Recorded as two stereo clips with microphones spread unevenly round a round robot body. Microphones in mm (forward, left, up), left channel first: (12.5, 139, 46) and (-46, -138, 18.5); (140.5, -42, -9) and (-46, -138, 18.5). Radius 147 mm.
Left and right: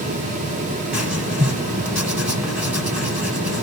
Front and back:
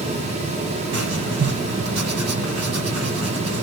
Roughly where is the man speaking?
No man speaking in this recording.